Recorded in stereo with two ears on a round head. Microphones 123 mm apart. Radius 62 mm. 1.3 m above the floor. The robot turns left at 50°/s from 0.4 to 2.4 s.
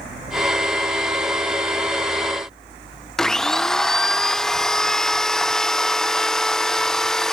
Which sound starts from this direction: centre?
A blender, at 3.2 s.